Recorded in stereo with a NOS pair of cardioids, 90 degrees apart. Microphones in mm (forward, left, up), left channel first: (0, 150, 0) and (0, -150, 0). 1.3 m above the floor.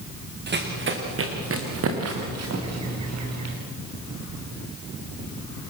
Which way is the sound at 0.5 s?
35° right.